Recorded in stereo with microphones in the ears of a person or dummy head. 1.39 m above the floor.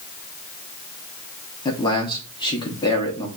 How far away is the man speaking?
About 0.8 m.